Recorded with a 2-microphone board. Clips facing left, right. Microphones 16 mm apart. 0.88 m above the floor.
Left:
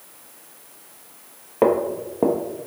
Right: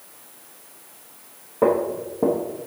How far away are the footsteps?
About 1.2 m.